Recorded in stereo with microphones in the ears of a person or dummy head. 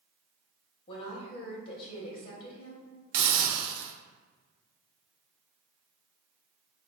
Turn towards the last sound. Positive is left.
turn(degrees=-55)  # may be behind; listen again after turning